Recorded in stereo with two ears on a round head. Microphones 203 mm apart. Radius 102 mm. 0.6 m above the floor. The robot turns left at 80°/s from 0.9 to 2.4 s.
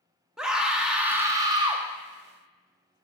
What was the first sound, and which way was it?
A scream, 5° right (ahead or behind).